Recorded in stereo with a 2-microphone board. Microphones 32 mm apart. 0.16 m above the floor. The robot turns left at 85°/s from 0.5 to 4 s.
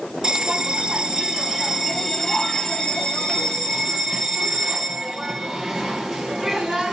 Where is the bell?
20° right (ahead or behind), 1.1 m; by 6.9 s 5° right (ahead or behind), 1.1 m.